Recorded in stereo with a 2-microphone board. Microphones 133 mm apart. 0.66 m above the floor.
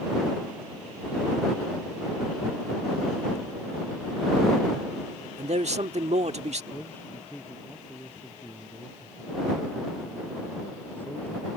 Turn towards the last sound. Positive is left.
turn(degrees=15)  # may be behind; listen again after turning